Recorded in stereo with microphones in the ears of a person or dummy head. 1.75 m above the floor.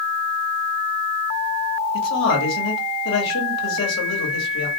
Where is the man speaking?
70° left (ahead or behind), 1.4 m.